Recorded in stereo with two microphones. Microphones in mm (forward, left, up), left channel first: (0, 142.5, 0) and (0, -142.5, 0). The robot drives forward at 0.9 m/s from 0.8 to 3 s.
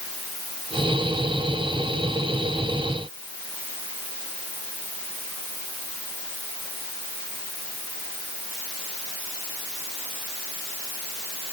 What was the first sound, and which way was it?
Only background noise.